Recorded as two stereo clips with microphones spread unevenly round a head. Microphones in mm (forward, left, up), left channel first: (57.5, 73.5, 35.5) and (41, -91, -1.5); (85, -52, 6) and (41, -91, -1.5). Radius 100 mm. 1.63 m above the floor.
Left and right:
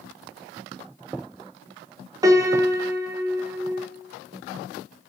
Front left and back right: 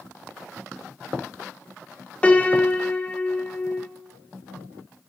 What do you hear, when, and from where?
2.2 s a piano: 25° right, 1.3 m